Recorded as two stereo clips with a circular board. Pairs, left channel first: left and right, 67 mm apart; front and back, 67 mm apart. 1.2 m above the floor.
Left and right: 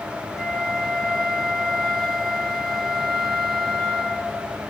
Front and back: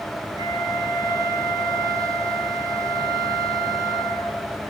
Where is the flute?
Straight behind, 0.9 m.